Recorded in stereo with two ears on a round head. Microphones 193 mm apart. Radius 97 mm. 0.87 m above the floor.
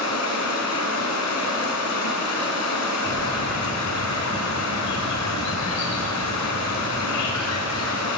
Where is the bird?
85° left, 4.5 m.